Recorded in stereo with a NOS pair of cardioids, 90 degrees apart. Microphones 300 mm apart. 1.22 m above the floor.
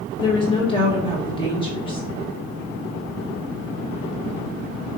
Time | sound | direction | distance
0.2 | a woman speaking | 15° left | 1.1 m